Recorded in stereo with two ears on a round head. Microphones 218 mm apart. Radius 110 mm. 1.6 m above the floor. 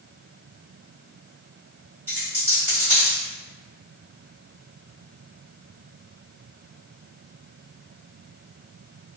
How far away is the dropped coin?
About 1.7 m.